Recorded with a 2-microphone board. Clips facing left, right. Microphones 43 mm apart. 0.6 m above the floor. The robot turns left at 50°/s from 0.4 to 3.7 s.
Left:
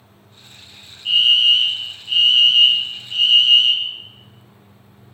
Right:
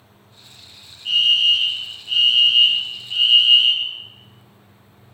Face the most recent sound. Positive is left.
turn(degrees=-15)  # may be behind; listen again after turning